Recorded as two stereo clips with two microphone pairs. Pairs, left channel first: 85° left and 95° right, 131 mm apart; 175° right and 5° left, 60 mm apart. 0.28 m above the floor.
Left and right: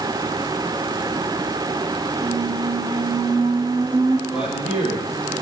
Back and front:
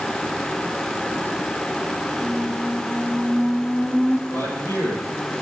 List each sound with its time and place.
2.2 s a squeak: 95° right, 0.9 m
4.3 s a man speaking: 175° right, 6.5 m